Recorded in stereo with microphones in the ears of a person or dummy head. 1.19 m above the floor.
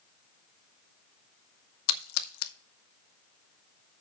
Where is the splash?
85° left, 0.9 m.